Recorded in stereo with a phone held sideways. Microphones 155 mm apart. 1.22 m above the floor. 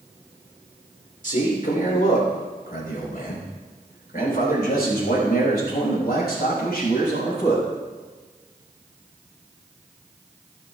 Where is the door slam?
No door slam in this recording.